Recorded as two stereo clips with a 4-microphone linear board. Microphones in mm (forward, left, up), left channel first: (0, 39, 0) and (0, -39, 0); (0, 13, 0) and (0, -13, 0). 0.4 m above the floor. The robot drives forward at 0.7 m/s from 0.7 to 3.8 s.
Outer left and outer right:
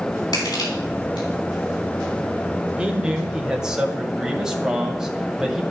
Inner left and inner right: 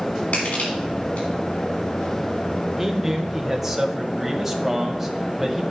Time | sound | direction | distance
0.3 | crushing | 75° left (ahead or behind) | 3.5 m
2.8 | a man speaking | 15° right (ahead or behind) | 1.1 m